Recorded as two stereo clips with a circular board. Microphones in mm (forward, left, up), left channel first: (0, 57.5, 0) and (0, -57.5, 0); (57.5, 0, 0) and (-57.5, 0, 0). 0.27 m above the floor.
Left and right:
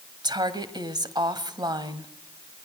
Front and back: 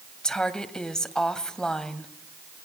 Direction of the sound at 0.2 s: 80° right.